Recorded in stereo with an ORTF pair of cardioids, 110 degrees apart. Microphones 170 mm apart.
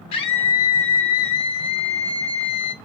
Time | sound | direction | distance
0.1 | a scream | 45° left | 0.7 m